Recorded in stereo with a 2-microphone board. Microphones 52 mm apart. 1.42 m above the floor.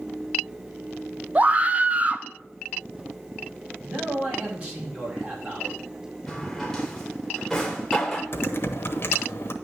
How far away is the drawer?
About 1.4 m.